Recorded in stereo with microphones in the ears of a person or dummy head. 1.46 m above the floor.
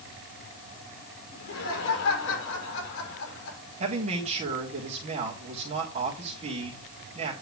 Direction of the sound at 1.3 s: 55° left (ahead or behind).